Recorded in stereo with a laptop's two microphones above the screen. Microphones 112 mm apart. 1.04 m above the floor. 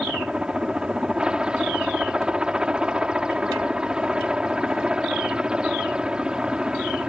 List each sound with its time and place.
0.0 s a helicopter: 10° right (ahead or behind)